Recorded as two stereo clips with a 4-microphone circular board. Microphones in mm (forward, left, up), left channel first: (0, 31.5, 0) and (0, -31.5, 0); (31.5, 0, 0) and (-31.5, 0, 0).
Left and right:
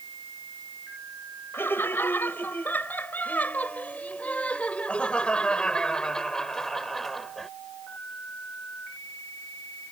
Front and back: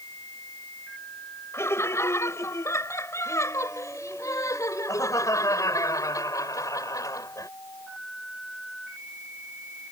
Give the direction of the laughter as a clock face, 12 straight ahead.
11 o'clock.